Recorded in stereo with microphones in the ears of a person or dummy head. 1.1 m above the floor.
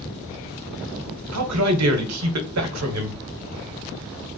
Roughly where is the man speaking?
Right.